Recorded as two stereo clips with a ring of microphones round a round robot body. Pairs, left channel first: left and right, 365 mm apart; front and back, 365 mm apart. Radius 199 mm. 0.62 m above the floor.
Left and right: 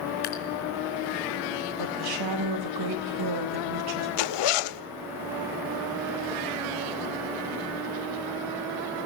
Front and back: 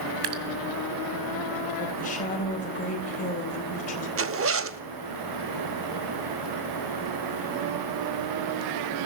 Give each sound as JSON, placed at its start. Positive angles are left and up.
{"t": 0.2, "sound": "dripping", "azimuth_deg": 160, "distance_m": 2.0}
{"t": 1.8, "sound": "a woman speaking", "azimuth_deg": -70, "distance_m": 3.5}
{"t": 4.2, "sound": "a zipper", "azimuth_deg": 125, "distance_m": 0.9}